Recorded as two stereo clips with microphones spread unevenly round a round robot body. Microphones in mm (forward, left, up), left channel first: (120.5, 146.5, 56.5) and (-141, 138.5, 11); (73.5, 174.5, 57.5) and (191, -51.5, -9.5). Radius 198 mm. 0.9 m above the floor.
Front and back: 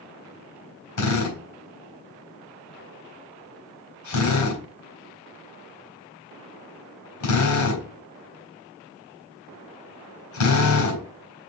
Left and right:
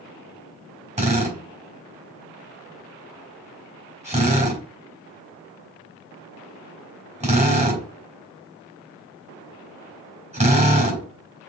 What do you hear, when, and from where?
1.0 s a drill: 5° left, 4 m